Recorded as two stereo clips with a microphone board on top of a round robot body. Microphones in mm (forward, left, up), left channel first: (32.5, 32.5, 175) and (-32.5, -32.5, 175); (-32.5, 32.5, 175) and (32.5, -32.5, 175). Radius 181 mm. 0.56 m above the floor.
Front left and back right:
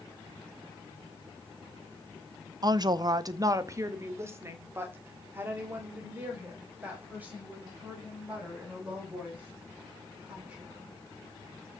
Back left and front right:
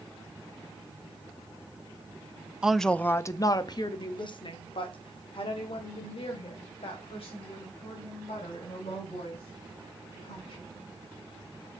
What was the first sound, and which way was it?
A woman speaking, 125° right.